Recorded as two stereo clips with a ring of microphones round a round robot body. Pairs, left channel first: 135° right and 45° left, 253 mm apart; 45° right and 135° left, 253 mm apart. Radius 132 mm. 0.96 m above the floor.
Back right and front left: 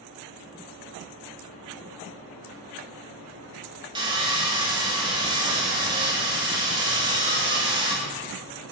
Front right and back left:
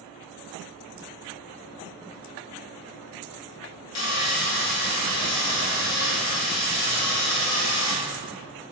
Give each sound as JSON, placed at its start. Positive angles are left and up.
{"t": 4.0, "sound": "sawing", "azimuth_deg": -25, "distance_m": 2.5}